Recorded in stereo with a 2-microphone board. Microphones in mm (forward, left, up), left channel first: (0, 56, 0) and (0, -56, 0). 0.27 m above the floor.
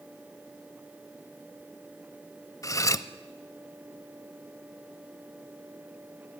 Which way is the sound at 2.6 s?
30° left (ahead or behind).